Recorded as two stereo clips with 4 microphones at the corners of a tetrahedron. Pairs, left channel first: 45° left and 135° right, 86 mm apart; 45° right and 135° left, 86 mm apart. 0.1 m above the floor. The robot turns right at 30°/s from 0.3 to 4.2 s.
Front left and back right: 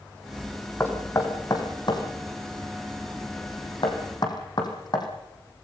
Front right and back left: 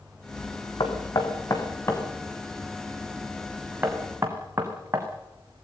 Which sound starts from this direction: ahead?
Knocking, at 0.8 s.